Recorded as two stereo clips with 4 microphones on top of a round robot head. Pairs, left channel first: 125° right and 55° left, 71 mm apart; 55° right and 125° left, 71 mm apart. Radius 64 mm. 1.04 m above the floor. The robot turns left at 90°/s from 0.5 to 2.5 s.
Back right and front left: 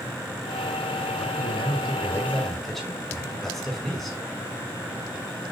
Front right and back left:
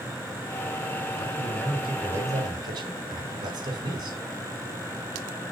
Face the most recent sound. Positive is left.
turn(degrees=150)